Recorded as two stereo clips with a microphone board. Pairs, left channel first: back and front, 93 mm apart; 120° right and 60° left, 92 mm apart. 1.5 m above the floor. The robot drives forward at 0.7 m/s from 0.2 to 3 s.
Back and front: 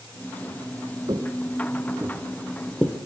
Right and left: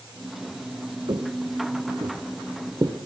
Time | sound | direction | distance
1.1 | footsteps | 35° left | 3.5 m